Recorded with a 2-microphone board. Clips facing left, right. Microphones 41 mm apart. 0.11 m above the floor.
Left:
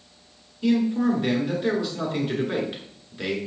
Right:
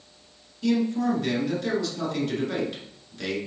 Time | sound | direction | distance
0.6 | a man speaking | 20° left (ahead or behind) | 1.1 m